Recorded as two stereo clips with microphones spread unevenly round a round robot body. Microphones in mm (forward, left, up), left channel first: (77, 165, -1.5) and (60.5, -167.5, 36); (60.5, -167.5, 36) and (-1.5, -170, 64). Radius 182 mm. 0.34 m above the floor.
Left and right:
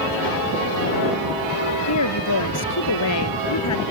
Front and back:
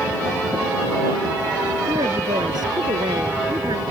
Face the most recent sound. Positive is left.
turn(degrees=135)